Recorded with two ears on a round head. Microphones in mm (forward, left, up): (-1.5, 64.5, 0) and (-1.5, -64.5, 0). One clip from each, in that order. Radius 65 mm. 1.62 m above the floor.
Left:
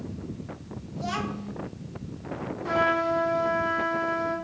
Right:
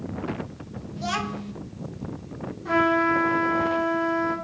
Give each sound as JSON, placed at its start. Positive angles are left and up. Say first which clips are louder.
{"t": 1.0, "sound": "a child speaking", "louder": "right 3 dB", "side_deg": -25, "distance_m": 0.7}
{"t": 2.6, "sound": "a trumpet", "louder": "right 3 dB", "side_deg": 25, "distance_m": 4.0}